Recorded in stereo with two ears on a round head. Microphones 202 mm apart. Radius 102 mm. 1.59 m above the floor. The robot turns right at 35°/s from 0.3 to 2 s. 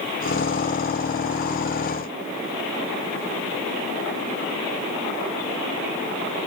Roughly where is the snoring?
I don't hear snoring.